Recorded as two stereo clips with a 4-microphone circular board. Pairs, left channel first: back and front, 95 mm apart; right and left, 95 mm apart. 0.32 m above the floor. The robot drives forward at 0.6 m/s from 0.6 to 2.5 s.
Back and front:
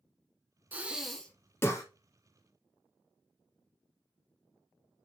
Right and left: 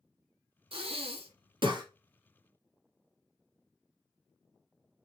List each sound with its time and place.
0.7 s breathing: 70° left, 0.7 m; by 1.9 s 125° left, 0.8 m